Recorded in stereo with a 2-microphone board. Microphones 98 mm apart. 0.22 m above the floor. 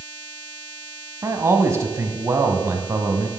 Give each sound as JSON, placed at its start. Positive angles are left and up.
{"t": 1.2, "sound": "a man speaking", "side_deg": -30, "distance_m": 1.2}